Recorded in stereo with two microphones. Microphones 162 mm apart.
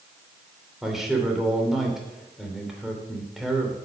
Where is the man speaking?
Centre (ahead or behind), 3 m.